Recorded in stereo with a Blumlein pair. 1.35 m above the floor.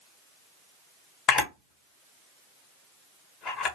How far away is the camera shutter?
About 1.4 m.